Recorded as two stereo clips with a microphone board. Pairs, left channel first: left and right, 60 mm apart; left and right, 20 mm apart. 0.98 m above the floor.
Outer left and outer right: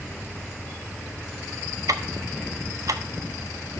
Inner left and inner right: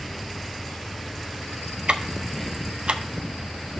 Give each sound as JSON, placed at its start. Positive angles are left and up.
{"t": 1.9, "sound": "ticking", "side_deg": -70, "distance_m": 0.5}